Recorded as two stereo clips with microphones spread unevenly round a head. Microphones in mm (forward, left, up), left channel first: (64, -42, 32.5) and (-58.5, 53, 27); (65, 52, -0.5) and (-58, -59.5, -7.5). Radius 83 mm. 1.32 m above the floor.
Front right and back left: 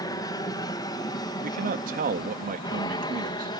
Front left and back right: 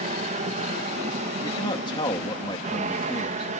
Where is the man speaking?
110° left.